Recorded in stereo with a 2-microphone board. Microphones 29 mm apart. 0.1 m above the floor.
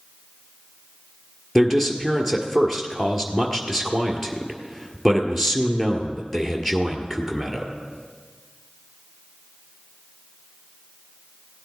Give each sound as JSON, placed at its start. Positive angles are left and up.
{"t": 1.6, "sound": "a man speaking", "side_deg": 0, "distance_m": 1.6}